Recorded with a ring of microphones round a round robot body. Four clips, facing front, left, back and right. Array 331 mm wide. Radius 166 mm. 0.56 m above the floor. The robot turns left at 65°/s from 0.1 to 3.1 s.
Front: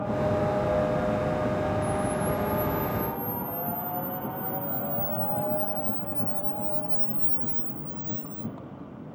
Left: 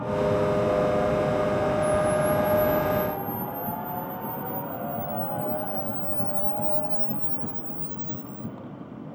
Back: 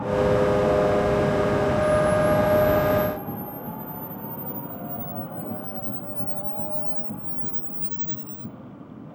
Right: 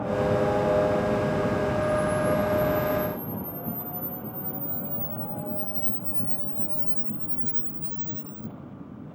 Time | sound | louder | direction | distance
1.8 | a camera shutter | left 2 dB, back 8 dB | 100° left | 1.8 m